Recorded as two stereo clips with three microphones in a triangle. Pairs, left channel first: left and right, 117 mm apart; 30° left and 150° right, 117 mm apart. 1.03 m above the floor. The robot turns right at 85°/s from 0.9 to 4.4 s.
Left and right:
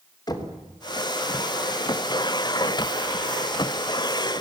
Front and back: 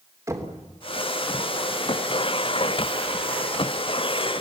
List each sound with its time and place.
0.3 s knocking: 145° left, 3 m